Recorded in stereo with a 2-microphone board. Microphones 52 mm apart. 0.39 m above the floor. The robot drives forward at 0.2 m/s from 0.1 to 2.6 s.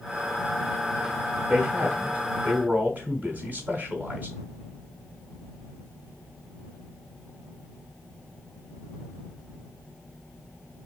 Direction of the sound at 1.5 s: 30° right (ahead or behind).